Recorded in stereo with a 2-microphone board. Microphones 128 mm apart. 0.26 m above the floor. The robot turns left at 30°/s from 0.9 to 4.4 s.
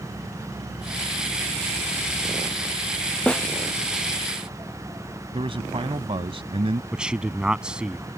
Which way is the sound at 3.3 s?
10° left (ahead or behind).